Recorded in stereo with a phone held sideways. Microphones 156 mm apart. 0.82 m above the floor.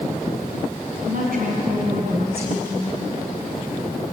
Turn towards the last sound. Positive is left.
turn(degrees=-80)